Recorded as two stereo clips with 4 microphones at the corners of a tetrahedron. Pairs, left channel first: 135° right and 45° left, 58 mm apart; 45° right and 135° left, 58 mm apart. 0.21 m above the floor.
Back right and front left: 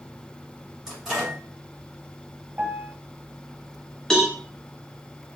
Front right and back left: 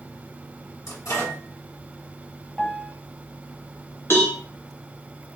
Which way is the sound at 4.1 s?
60° right.